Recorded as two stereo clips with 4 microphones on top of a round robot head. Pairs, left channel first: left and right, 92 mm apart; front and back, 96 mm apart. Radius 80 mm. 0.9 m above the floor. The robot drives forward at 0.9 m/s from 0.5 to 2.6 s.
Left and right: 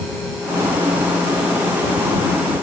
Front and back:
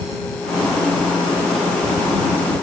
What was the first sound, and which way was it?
Only background noise.